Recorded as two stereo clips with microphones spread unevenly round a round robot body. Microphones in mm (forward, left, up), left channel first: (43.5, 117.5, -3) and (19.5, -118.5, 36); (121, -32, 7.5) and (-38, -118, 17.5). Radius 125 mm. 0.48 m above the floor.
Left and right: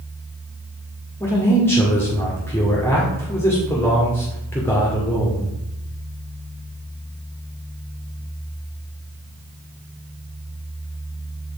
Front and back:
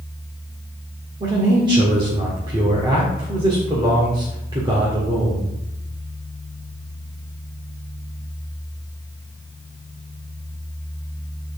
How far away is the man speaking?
About 1.5 m.